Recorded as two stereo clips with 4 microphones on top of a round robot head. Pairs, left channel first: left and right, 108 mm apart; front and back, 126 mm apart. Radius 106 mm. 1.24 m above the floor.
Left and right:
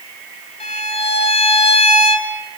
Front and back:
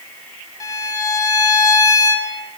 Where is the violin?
65° left, 3 m.